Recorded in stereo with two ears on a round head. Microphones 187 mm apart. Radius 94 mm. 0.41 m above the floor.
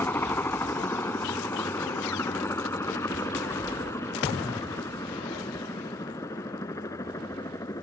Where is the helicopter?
10° left (ahead or behind); by 7.8 s 15° left (ahead or behind).